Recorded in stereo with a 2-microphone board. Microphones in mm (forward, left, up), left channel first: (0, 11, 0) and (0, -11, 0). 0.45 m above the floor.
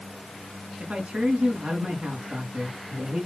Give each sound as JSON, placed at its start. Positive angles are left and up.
{"t": 0.8, "sound": "a man speaking", "side_deg": -75, "distance_m": 4.5}